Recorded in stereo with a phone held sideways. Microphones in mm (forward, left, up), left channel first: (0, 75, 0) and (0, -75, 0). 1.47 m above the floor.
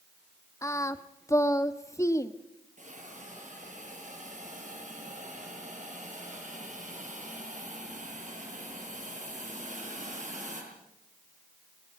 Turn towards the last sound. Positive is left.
turn(degrees=-55)  # may be behind; listen again after turning